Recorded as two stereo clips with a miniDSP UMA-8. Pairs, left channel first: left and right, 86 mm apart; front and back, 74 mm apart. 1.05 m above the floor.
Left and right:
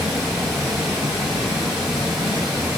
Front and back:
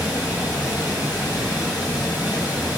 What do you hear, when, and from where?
0.0 s running water: 5° right, 1.8 m